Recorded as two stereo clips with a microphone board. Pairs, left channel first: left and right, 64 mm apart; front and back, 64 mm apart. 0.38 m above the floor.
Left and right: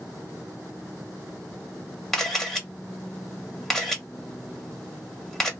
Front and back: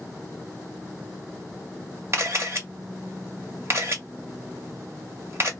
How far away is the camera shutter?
About 1.4 m.